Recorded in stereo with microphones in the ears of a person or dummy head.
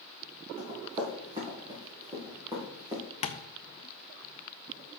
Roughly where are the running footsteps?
Right.